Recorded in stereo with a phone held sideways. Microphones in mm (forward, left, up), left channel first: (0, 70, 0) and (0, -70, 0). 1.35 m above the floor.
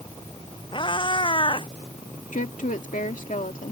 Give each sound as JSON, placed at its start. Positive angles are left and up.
{"t": 0.7, "sound": "a cat meowing", "side_deg": 40}
{"t": 2.3, "sound": "a woman speaking", "side_deg": 80}